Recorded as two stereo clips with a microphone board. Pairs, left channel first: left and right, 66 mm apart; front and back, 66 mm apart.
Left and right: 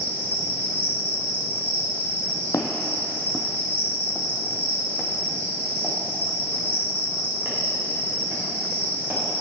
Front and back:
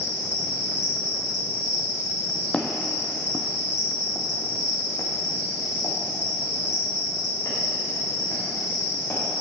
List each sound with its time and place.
0.0 s an insect: 115° left, 2.5 m
2.5 s footsteps: 75° left, 0.7 m; by 9.2 s 35° right, 4 m